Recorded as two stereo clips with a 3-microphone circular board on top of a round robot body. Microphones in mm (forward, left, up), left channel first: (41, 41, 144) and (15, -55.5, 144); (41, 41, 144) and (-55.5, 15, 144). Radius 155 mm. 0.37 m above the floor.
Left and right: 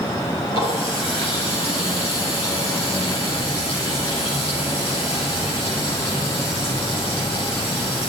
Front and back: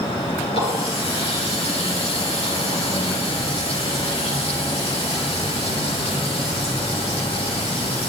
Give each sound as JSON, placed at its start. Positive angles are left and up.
{"t": 0.5, "sound": "a running tap", "azimuth_deg": 45, "distance_m": 6.5}